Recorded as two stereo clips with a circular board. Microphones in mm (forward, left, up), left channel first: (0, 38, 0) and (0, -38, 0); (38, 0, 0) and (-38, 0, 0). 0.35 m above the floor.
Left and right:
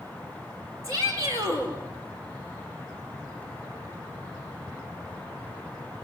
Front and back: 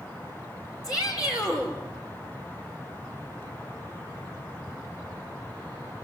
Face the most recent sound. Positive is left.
turn(degrees=-40)